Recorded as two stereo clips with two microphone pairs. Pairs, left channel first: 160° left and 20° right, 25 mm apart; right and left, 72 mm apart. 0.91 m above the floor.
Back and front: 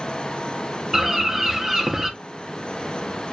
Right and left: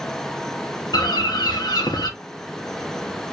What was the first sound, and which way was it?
A bird, 90° right.